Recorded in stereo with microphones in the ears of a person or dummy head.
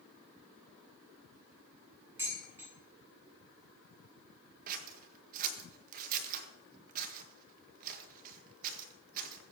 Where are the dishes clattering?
10° right (ahead or behind), 9.5 m.